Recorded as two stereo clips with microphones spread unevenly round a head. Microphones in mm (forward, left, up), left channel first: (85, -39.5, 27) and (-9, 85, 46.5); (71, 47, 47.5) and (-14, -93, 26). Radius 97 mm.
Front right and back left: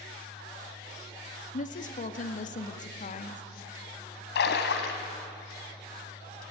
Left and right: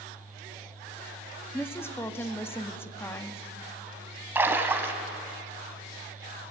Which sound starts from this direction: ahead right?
A splash, at 4.3 s.